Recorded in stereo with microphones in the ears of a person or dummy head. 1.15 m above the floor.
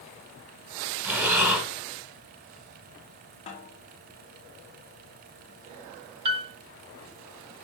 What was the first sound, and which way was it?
Breathing, 10° right (ahead or behind).